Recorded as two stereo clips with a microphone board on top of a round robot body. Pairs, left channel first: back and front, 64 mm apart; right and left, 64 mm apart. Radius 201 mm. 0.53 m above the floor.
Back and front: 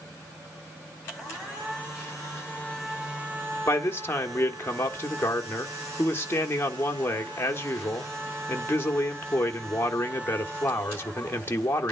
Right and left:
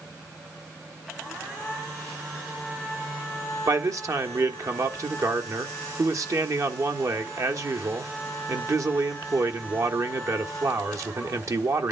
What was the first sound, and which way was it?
A man speaking, 125° left.